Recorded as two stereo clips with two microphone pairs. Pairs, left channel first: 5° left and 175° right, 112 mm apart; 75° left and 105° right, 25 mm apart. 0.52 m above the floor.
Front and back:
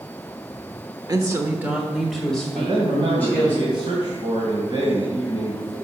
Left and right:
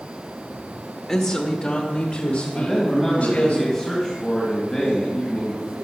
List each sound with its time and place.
1.1 s a woman speaking: 140° left, 1.3 m; by 3.5 s 75° left, 3 m
2.5 s a man speaking: 145° left, 2.5 m